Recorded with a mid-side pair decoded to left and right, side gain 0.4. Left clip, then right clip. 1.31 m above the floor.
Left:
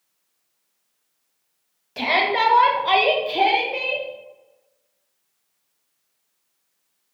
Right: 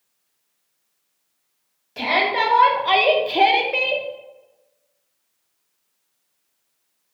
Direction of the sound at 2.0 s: 25° left.